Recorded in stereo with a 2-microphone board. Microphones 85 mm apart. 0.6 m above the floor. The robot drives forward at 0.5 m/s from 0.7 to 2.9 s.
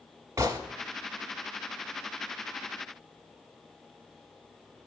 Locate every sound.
0.4 s a gunshot: 35° right (ahead or behind), 1.1 m